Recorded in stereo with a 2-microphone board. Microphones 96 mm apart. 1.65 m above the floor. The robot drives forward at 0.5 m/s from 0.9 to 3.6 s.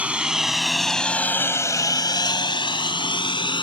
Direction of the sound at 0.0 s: 15° right (ahead or behind).